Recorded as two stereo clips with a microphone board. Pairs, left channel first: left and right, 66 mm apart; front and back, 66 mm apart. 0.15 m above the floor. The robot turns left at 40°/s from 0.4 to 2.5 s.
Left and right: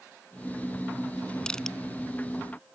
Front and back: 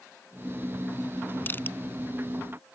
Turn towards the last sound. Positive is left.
turn(degrees=-20)